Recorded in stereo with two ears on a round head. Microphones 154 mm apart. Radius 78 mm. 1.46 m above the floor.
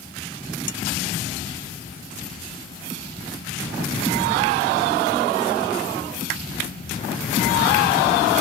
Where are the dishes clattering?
75° left (ahead or behind).